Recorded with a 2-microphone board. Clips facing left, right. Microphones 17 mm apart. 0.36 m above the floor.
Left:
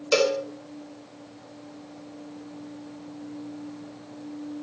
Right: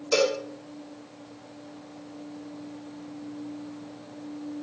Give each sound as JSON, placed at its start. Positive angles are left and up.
{"t": 0.1, "sound": "a cowbell", "side_deg": 45, "distance_m": 1.0}